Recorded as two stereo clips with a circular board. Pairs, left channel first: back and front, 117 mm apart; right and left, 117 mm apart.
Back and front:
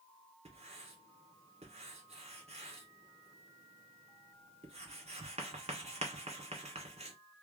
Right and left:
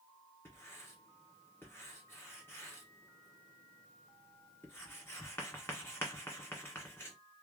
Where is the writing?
20° right, 1.7 m.